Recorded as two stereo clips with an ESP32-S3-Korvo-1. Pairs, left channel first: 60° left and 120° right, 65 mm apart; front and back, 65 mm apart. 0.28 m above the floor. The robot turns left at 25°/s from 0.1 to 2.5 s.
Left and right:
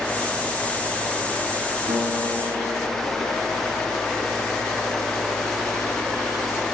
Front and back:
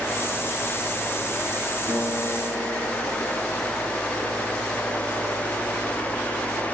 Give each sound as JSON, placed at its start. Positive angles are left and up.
{"t": 1.9, "sound": "a piano", "azimuth_deg": -125, "distance_m": 5.0}